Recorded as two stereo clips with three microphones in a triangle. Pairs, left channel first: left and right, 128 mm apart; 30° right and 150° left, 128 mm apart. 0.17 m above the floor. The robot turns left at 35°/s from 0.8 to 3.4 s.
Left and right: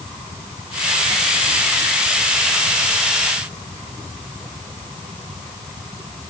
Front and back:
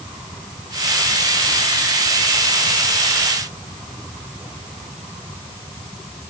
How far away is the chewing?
I don't hear chewing.